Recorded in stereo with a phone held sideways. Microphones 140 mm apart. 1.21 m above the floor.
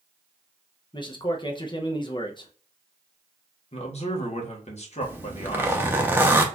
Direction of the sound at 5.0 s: 15° right (ahead or behind).